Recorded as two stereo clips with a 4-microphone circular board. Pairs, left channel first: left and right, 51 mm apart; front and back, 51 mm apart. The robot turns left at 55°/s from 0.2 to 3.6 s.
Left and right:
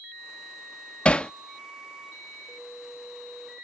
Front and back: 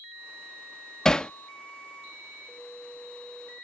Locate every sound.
1.1 s hammering: 60° left; by 1.3 s 45° left